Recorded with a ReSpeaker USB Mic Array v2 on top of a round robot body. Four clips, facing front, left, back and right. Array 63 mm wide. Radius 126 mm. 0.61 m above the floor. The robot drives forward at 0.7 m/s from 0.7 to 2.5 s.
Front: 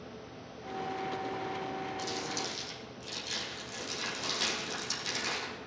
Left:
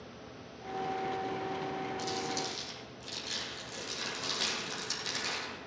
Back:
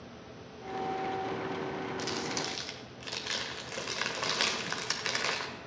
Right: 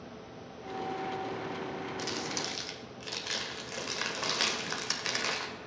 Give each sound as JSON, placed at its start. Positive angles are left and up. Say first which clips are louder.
{"t": 2.0, "sound": "crumpling", "louder": "left 1 dB, back 2 dB", "azimuth_deg": -135, "distance_m": 1.1}